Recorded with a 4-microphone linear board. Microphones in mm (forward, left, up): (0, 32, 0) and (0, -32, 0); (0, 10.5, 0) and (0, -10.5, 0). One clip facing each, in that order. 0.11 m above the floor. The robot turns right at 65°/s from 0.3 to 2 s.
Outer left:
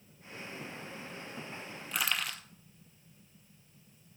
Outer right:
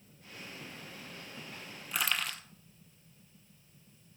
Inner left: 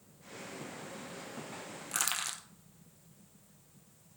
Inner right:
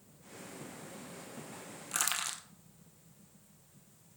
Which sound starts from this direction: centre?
Crushing, at 1.9 s.